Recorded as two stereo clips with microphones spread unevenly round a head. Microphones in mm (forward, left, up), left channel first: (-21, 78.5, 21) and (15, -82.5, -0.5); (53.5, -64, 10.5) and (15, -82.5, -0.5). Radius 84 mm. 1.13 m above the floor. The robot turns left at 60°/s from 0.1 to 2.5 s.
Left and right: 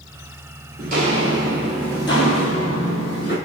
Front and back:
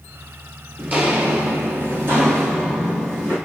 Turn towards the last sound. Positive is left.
turn(degrees=110)